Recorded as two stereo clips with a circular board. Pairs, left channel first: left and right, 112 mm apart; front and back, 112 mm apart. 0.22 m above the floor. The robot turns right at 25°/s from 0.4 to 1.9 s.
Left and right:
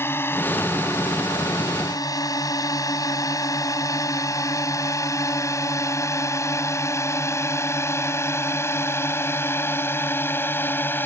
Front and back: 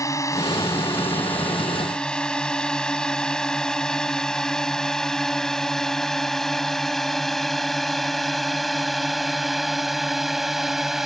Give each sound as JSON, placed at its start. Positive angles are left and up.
{"t": 0.0, "sound": "a drone", "azimuth_deg": 35}